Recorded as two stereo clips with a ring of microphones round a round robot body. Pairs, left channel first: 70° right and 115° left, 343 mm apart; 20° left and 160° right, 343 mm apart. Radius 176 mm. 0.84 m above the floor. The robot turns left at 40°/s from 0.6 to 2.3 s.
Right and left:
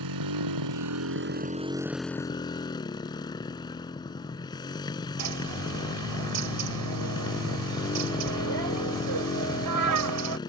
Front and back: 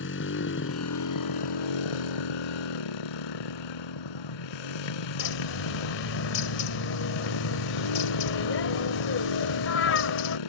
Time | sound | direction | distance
0.0 | a motorcycle | 80° left | ?
5.2 | a bird | 75° left | ?